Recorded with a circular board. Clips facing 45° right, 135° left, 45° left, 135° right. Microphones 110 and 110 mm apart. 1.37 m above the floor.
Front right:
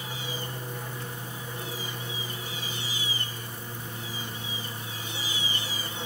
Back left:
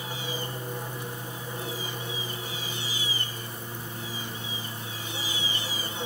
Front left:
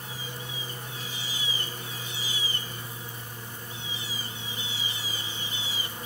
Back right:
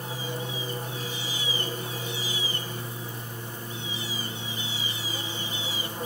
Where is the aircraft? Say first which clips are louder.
Back left 2 dB, back right 6 dB; 160° right.